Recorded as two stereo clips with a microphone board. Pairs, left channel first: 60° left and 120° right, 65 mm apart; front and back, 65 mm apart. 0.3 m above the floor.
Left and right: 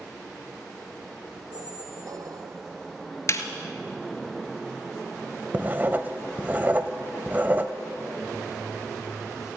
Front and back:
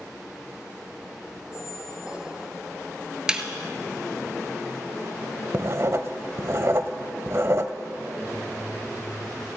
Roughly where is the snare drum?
Left.